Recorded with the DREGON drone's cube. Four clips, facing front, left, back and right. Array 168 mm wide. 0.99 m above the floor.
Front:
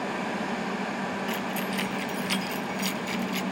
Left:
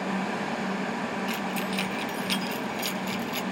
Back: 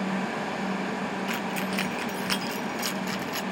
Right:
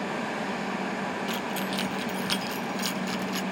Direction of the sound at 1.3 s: 160° right.